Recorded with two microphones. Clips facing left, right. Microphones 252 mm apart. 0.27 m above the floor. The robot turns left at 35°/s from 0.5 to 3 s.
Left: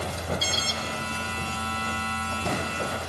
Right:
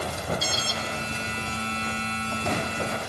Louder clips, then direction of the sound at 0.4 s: Right 1 dB; 30° left (ahead or behind).